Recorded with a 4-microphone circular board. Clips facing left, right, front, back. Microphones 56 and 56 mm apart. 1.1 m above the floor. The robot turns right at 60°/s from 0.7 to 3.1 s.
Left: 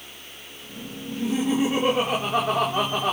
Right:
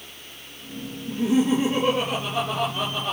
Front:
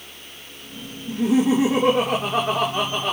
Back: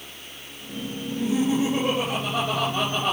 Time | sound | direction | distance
1.1 | laughter | 25° right | 3.5 m